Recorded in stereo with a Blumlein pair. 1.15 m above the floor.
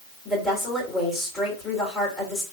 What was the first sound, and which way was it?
A woman speaking, 5° left.